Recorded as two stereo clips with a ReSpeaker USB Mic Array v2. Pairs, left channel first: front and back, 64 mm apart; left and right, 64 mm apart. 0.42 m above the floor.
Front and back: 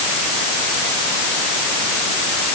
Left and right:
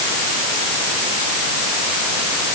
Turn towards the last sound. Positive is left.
No sound to turn to.